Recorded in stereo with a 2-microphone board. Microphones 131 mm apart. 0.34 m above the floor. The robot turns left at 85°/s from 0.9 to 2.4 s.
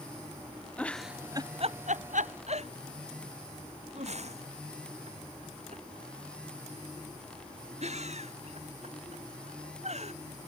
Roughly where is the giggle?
Centre.